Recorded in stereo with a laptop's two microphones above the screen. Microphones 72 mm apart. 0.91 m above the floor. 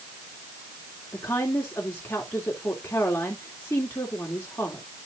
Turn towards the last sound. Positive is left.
turn(degrees=30)  # may be behind; listen again after turning